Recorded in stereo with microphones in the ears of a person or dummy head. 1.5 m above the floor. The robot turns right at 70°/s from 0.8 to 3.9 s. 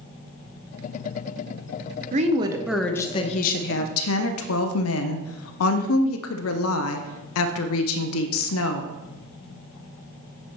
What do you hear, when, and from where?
2.1 s a woman speaking: 40° right, 0.6 m; by 8.9 s 85° left, 0.6 m